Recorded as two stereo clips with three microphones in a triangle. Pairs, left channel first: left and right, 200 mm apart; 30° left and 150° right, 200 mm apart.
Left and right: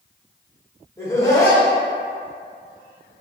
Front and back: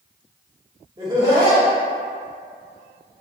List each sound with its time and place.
1.0 s laughter: 155° left, 1.1 m